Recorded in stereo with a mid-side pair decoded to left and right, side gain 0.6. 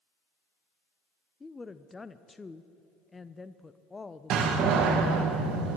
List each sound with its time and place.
1.4 s a woman speaking: 15° left, 0.5 m
4.3 s a door slam: 60° right, 1.8 m